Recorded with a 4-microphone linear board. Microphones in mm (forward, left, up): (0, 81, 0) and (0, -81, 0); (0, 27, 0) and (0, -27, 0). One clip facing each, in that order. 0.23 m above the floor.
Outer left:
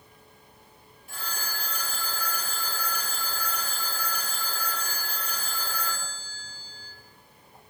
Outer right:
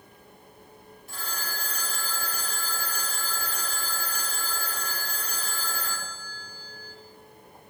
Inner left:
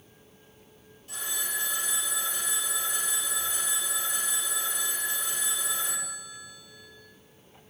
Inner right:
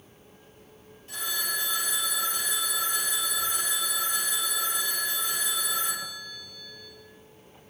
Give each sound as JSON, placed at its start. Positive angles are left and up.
{"t": 1.1, "sound": "a phone ringing", "side_deg": -40, "distance_m": 3.0}